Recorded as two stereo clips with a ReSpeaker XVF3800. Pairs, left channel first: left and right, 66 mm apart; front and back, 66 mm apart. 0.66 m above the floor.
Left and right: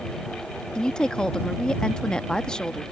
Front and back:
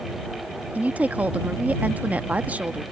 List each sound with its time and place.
0.8 s a woman speaking: 150° left